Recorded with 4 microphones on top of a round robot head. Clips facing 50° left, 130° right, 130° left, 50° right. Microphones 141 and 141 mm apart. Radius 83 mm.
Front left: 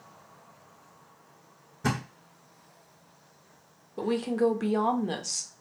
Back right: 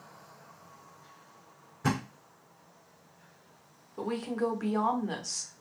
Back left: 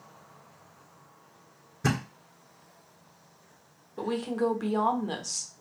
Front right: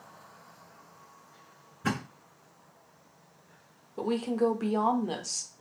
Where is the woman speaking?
25° left, 0.9 m.